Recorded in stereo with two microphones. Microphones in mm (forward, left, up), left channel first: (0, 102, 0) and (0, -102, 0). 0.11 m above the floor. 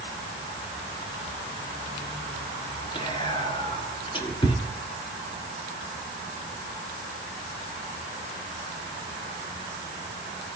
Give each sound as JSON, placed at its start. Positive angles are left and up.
{"t": 3.0, "sound": "whispering", "side_deg": 25, "distance_m": 1.3}